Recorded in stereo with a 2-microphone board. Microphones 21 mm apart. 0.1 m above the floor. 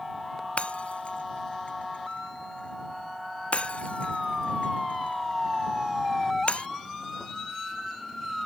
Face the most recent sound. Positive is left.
turn(degrees=80)